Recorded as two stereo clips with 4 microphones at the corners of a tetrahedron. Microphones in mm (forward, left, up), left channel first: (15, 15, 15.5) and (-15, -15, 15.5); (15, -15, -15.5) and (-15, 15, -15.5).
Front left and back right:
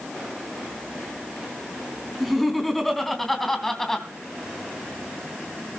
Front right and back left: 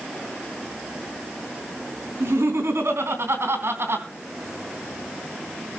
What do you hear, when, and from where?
2.2 s laughter: 135° left, 4 m; by 4.1 s 125° left, 3 m